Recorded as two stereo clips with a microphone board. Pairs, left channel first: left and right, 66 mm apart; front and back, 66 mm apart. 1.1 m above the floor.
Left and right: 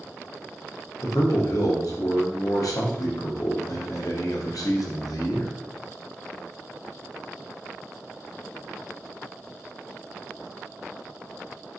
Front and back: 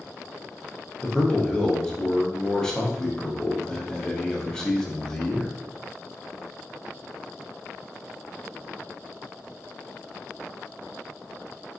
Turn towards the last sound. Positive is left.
turn(degrees=80)